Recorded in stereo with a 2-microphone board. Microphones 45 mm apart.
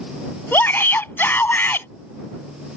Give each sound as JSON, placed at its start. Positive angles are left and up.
{"t": 0.5, "sound": "a shout", "side_deg": 45}